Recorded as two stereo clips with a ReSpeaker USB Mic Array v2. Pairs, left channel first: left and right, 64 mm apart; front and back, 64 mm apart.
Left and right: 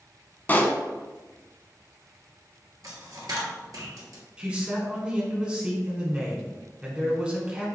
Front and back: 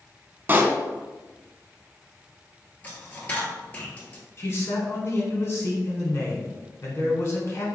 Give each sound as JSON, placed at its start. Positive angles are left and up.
{"t": 0.5, "sound": "a pop", "azimuth_deg": 135, "distance_m": 0.5}
{"t": 2.8, "sound": "a dropped coin", "azimuth_deg": -65, "distance_m": 1.2}
{"t": 4.4, "sound": "a man speaking", "azimuth_deg": -25, "distance_m": 1.3}